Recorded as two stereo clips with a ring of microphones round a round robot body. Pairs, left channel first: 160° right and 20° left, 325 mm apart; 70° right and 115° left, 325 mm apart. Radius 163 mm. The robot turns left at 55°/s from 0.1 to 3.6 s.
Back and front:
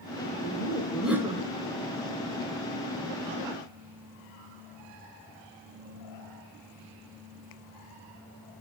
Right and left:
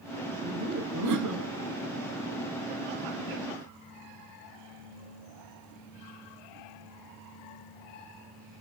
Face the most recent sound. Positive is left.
turn(degrees=-30)